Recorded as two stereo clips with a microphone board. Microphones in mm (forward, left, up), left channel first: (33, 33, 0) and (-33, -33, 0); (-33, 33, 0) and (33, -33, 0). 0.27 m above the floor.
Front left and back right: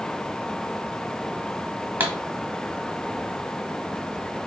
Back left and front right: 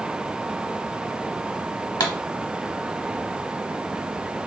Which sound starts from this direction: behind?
A pop, at 2.0 s.